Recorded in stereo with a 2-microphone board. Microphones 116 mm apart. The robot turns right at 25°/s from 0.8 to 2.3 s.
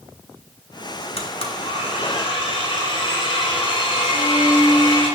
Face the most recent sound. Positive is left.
turn(degrees=-65)  # may be behind; listen again after turning